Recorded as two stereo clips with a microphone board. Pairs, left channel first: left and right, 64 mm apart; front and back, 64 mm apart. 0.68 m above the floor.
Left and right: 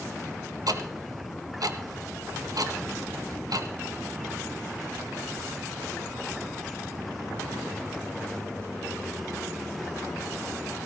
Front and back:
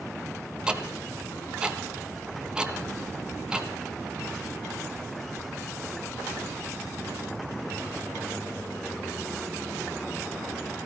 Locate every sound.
0.7 s ticking: 105° right, 1.3 m